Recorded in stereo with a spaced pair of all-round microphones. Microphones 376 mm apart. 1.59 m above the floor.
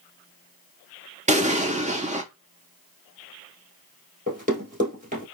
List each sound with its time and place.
1.3 s an explosion: 20° right (ahead or behind), 0.5 m
4.3 s running footsteps: 20° right (ahead or behind), 1.7 m